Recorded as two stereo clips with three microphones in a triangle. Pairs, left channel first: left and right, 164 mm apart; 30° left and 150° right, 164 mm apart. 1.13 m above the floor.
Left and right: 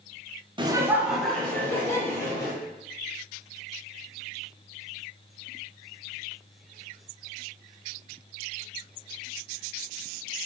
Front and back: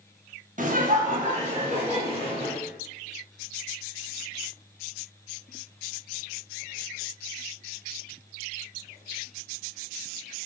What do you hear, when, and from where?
0.6 s laughter: 145° right, 0.6 m; by 2.6 s 160° left, 1.8 m